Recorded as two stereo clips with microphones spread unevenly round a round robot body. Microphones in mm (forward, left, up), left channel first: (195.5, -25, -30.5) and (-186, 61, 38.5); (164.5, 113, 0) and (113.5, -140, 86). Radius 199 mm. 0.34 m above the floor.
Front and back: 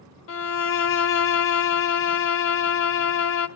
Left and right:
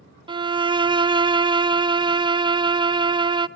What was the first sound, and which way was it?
A violin, 10° right.